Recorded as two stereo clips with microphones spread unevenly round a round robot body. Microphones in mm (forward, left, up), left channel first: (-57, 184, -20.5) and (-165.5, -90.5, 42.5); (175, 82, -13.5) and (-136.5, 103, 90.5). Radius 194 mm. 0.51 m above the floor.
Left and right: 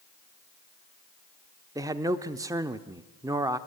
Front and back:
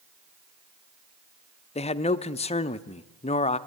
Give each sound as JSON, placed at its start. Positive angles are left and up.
{"t": 1.8, "sound": "a man speaking", "azimuth_deg": -20, "distance_m": 0.8}